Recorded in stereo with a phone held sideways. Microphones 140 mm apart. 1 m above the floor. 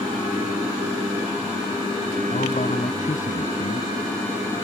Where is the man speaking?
70° left (ahead or behind).